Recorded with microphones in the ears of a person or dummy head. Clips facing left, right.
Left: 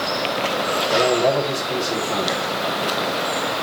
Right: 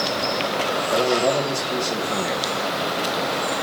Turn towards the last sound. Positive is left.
turn(degrees=10)  # may be behind; listen again after turning